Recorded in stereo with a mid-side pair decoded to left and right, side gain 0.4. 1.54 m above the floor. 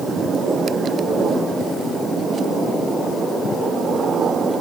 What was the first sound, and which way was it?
Only background noise.